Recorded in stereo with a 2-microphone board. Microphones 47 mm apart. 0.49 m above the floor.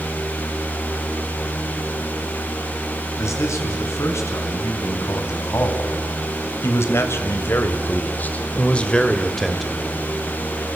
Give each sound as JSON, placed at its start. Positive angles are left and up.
{"t": 3.2, "sound": "a man speaking", "side_deg": 75, "distance_m": 5.5}